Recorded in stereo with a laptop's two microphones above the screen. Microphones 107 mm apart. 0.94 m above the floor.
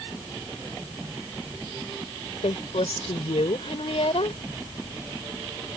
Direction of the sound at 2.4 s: 80° left.